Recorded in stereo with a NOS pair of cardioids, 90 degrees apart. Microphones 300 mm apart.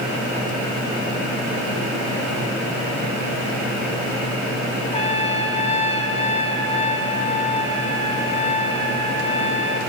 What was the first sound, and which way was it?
A trumpet, 20° left.